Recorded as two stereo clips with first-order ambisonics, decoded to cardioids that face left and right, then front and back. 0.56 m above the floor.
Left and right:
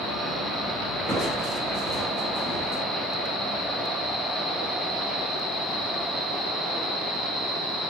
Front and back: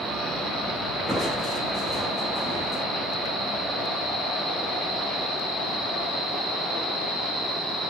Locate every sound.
1.1 s crushing: 110° right, 1.1 m